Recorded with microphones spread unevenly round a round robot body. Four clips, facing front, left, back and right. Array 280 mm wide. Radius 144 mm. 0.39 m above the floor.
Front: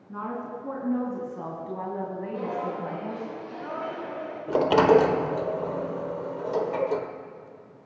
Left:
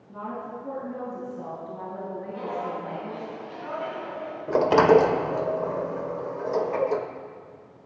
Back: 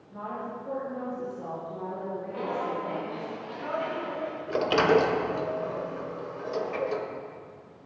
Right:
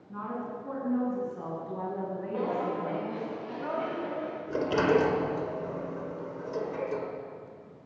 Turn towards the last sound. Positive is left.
turn(degrees=65)